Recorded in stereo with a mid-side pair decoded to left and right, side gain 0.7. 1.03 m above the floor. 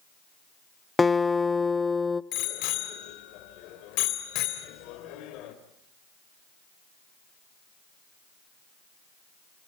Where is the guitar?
15° left, 0.6 m.